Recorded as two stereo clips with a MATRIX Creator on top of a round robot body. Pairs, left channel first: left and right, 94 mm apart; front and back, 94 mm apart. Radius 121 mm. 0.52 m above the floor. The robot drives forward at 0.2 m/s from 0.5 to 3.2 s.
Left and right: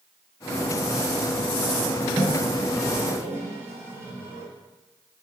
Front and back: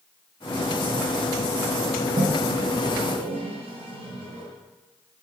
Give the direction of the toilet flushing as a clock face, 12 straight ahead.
5 o'clock.